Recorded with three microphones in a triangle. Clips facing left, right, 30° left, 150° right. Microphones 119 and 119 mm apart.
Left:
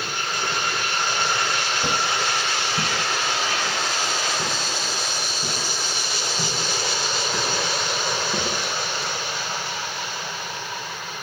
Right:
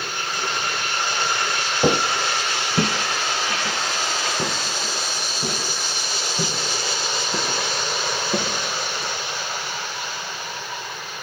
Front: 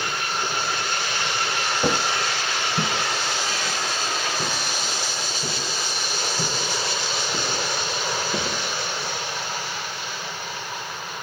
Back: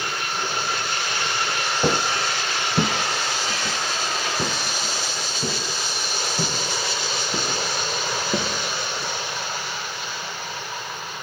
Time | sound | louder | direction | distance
1.8 | footsteps | right 7 dB, back 2 dB | 70° right | 0.8 m